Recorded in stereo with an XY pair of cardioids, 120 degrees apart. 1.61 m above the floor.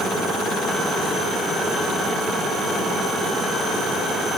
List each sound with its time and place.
Only background noise.